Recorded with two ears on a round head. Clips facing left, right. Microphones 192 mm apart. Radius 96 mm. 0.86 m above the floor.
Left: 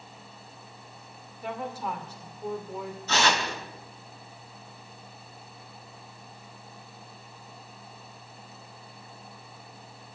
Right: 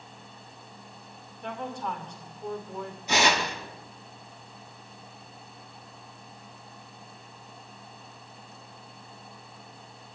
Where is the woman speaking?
5° left (ahead or behind), 2.5 m.